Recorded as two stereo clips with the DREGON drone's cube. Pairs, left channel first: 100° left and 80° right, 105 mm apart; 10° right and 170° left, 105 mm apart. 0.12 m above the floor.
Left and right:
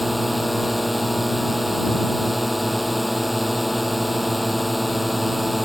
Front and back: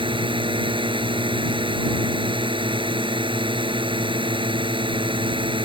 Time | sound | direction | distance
0.0 | a drone | 170° right | ?